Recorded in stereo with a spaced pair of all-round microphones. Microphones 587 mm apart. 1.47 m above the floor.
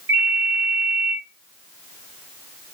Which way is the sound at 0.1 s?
65° right (ahead or behind).